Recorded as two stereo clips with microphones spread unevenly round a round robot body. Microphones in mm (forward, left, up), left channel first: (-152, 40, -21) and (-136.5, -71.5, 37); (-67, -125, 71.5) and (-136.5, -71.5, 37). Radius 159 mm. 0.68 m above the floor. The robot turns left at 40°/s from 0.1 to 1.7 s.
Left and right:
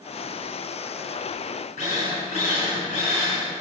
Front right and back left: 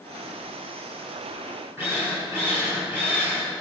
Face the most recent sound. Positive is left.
turn(degrees=70)